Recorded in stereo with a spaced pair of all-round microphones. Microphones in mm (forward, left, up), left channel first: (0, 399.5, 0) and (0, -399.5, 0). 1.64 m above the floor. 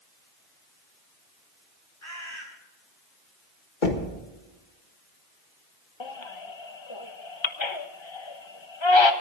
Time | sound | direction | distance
2.0 | a bird | 60° left (ahead or behind) | 4 m
3.8 | knocking | 70° left (ahead or behind) | 1.9 m
6.0 | a baby crying | 35° left (ahead or behind) | 1.0 m